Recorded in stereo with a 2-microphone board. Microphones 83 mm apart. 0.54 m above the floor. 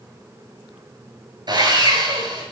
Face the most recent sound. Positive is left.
turn(degrees=-55)  # may be behind; listen again after turning